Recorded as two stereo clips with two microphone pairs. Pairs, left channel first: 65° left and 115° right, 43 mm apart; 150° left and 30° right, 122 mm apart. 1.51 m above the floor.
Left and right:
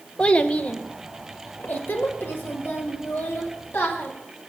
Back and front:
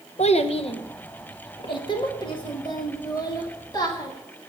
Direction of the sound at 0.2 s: 130° left.